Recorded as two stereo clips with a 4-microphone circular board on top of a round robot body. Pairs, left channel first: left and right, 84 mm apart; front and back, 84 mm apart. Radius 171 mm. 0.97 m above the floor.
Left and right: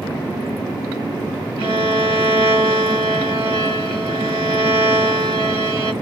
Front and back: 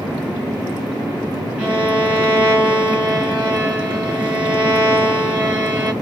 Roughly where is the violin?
Right.